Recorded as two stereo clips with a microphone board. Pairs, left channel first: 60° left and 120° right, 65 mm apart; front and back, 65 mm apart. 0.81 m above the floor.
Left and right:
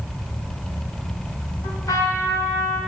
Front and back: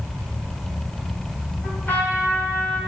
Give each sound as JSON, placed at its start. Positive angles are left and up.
{"t": 1.6, "sound": "a trumpet", "azimuth_deg": 60, "distance_m": 6.0}